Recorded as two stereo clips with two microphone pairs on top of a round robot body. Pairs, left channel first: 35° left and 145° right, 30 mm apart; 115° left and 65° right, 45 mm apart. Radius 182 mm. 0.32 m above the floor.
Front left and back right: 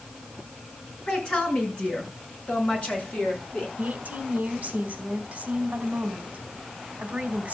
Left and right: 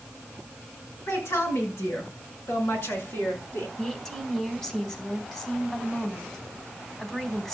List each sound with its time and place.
1.1 s a woman speaking: 105° left, 7 m; by 3.7 s 90° left, 7 m
3.8 s a woman speaking: straight behind, 3 m